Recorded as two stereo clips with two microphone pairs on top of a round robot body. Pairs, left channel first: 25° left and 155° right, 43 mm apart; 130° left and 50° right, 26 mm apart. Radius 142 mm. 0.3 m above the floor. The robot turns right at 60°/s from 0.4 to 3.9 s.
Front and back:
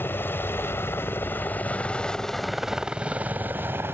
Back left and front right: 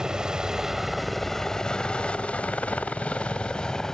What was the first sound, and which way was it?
A helicopter, 10° left.